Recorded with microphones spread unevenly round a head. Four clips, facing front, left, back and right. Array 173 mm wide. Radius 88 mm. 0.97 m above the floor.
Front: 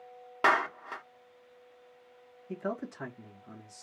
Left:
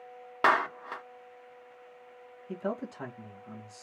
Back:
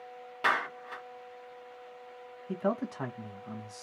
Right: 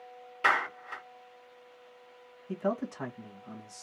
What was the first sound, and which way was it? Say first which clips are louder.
A clap: left 3 dB, front 3 dB; 60° left.